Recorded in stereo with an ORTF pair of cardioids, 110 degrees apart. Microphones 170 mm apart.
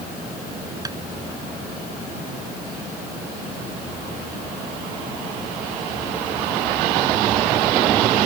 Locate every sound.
0.8 s tapping: 20° right